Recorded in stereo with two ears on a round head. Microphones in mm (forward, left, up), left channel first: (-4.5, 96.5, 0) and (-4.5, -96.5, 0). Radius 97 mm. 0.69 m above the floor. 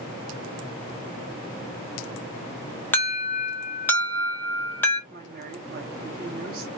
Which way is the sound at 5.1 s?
45° right (ahead or behind).